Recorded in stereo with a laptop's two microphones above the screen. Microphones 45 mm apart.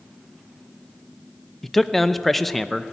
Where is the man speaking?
5° left (ahead or behind), 0.6 m.